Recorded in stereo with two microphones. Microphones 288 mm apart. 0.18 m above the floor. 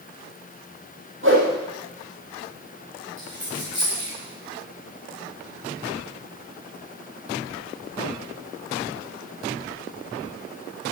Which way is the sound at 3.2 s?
45° right (ahead or behind).